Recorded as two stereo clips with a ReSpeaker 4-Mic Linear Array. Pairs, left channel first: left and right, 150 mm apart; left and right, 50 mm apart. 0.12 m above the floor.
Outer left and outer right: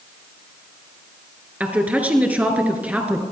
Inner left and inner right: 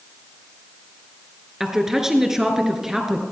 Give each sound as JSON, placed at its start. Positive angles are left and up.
{"t": 1.6, "sound": "a woman speaking", "side_deg": -10, "distance_m": 1.5}